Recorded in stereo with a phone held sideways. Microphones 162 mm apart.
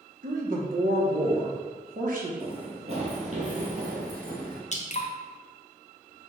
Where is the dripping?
45° left (ahead or behind), 0.6 m.